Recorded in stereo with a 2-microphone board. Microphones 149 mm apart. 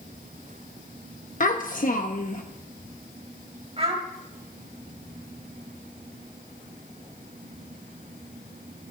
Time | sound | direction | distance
1.4 | a child speaking | 65° left (ahead or behind) | 1.0 m
3.8 | a child speaking | 45° right (ahead or behind) | 4 m